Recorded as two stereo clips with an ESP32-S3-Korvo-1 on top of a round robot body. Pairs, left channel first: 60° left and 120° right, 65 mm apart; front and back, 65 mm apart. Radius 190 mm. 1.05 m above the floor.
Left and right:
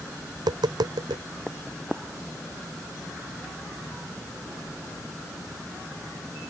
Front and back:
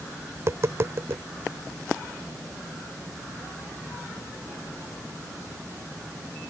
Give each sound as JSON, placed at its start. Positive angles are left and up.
{"t": 0.3, "sound": "tapping", "azimuth_deg": -130}